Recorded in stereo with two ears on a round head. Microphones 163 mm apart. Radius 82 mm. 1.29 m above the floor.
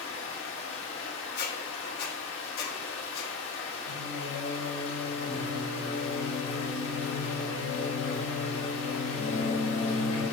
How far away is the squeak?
About 1.0 m.